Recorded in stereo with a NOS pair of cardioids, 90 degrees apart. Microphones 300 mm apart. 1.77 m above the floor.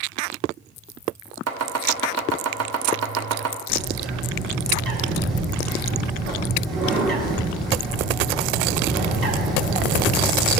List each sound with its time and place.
1.5 s chopping: 55° right, 1.3 m
3.7 s a bird: 55° right, 2.5 m